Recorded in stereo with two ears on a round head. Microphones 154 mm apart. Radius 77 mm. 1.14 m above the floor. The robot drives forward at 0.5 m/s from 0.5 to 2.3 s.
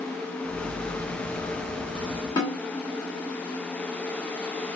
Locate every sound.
2.4 s a snare drum: 25° left (ahead or behind), 1.6 m